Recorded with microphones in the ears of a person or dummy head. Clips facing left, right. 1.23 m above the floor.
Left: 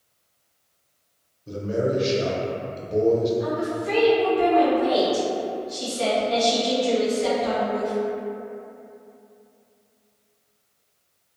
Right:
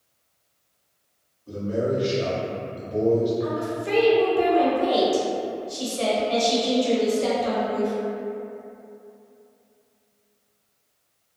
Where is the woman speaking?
45° right (ahead or behind), 0.8 m.